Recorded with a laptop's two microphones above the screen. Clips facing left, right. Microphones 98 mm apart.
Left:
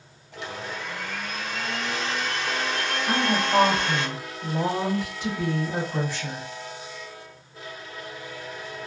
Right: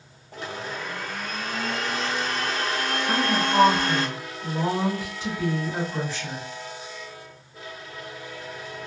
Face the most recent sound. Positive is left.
turn(degrees=50)  # may be behind; listen again after turning